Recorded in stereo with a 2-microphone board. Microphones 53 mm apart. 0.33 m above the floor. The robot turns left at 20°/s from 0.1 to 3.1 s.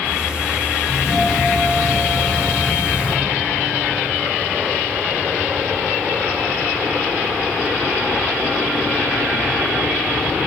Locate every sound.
0.9 s a doorbell: 15° left, 4.5 m; by 3.2 s 30° right, 4.5 m